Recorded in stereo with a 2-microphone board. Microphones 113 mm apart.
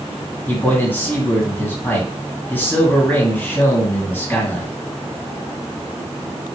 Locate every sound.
0.5 s a man speaking: 15° left (ahead or behind), 1.8 m